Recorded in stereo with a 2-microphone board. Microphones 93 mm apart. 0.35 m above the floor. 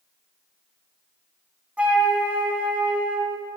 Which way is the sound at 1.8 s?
15° right (ahead or behind).